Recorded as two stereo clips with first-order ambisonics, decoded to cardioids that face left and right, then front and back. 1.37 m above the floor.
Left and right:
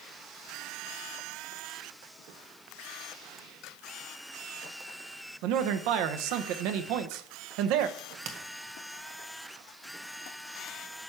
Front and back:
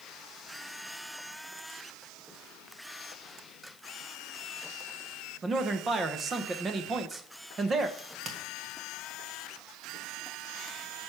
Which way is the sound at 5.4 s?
110° right.